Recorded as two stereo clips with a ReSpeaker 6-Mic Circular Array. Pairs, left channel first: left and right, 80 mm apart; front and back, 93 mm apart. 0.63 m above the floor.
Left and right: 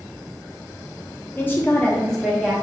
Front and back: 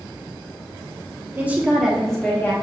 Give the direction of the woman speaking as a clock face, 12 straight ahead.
8 o'clock.